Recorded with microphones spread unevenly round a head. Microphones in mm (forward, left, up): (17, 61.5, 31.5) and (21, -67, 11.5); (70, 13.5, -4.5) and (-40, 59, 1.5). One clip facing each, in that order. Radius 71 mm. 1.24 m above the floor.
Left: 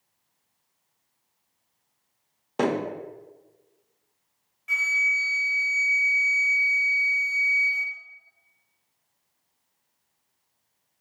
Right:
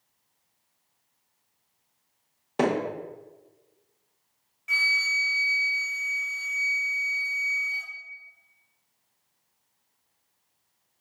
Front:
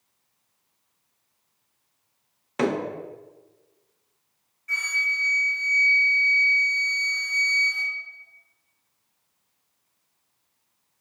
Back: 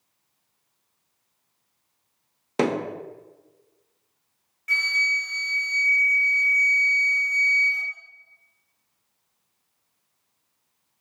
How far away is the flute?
About 0.7 m.